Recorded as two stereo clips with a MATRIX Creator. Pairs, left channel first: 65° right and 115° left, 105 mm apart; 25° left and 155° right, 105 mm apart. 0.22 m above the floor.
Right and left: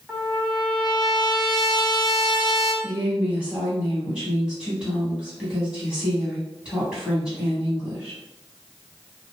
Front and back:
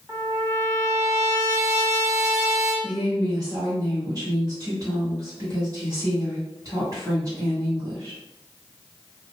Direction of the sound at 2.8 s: 170° right.